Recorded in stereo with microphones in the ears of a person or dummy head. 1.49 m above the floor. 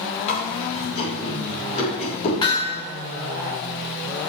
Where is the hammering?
20° left (ahead or behind), 2.5 m.